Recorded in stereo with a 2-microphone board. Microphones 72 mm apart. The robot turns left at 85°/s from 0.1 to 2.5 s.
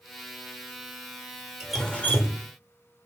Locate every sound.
1.6 s dripping: 170° right, 0.8 m; by 2.4 s 120° left, 0.8 m